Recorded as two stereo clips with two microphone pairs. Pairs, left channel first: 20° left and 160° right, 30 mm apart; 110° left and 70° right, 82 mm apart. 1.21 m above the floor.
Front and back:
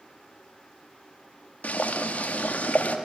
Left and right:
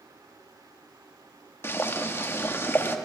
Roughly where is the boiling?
Ahead left.